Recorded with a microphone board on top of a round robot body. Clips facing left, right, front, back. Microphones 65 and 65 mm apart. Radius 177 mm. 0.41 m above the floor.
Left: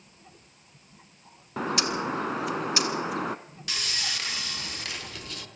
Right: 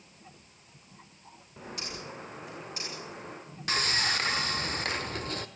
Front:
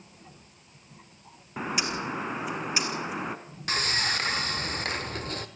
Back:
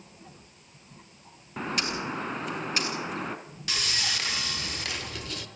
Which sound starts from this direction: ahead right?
Sawing, at 3.7 s.